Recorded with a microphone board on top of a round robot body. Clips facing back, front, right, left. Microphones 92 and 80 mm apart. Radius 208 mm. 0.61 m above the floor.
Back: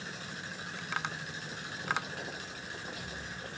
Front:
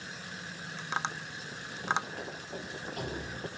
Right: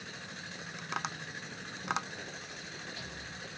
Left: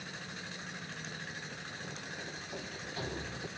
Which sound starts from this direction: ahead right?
Tapping, at 0.8 s.